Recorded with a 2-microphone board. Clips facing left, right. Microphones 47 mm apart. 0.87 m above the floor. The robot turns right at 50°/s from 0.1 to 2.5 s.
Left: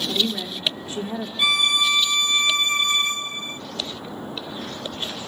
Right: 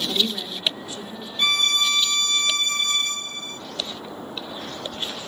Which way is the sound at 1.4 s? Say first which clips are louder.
Left 1 dB; 5° left (ahead or behind).